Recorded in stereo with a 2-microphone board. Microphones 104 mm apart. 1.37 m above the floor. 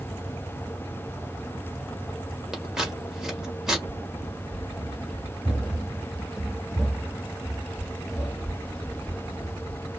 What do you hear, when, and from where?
2.5 s scissors: 5° right (ahead or behind), 1.8 m
3.9 s running footsteps: 10° right (ahead or behind), 2.5 m; by 9.9 s 15° left (ahead or behind), 1.8 m